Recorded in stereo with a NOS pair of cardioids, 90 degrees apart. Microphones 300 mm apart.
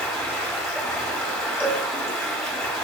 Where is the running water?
5° left, 0.7 m.